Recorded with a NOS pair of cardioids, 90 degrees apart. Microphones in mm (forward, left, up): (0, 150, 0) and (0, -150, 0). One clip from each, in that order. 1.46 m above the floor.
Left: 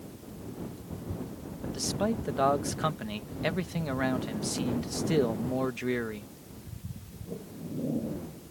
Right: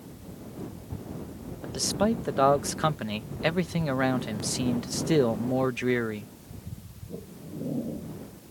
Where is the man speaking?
30° right.